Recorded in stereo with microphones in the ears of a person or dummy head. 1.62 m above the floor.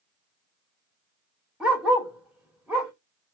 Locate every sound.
1.6 s a dog barking: 5° right (ahead or behind), 2.0 m